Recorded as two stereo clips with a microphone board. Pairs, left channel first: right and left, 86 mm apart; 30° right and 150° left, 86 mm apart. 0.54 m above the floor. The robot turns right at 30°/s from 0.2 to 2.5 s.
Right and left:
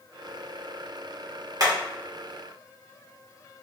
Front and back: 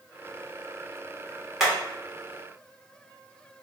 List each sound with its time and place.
1.6 s hammering: 65° left, 1.4 m; by 1.8 s 70° left, 1.4 m